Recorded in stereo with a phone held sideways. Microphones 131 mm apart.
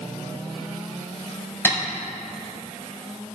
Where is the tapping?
15° left (ahead or behind), 4 m.